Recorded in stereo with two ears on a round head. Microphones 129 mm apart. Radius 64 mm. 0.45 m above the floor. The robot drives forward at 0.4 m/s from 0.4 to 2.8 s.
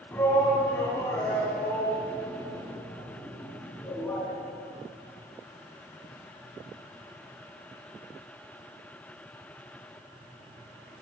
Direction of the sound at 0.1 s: 15° left (ahead or behind).